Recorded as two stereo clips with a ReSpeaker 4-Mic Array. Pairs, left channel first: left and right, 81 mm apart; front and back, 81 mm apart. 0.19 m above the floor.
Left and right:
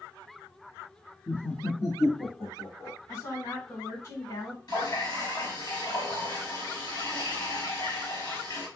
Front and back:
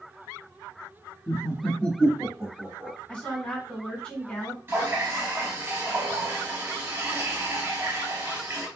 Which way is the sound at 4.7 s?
120° left.